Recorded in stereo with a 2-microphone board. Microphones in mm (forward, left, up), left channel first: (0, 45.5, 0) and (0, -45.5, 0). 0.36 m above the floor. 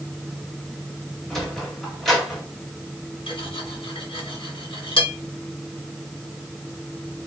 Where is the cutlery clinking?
75° left (ahead or behind), 1.8 m.